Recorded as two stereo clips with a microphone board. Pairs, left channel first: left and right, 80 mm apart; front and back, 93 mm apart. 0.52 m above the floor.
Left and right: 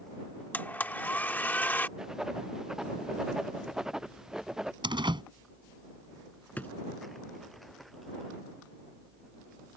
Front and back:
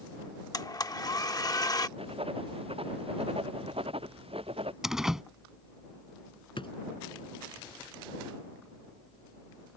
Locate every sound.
0.5 s a blender: 30° left
2.0 s writing: 175° right
4.8 s a door slam: 95° right
6.6 s a drawer: 20° left